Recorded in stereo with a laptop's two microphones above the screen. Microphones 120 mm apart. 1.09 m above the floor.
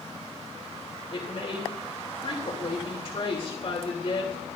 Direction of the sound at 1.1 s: 50° left (ahead or behind).